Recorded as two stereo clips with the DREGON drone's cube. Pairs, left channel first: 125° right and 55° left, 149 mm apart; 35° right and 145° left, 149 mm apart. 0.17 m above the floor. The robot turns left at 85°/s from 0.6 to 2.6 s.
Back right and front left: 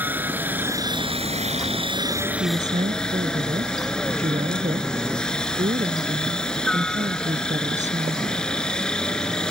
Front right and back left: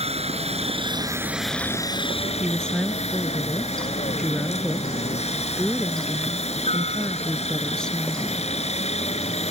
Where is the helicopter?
130° left; by 9.5 s 40° right.